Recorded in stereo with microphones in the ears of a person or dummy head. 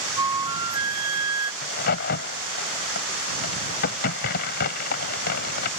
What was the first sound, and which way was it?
A flute, 15° right (ahead or behind).